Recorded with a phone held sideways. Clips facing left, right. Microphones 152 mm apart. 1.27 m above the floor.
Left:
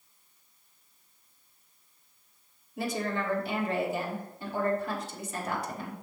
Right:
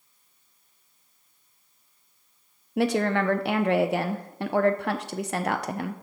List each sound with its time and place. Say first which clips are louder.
2.8 s a woman speaking: right 8 dB; 75° right (ahead or behind), 0.5 m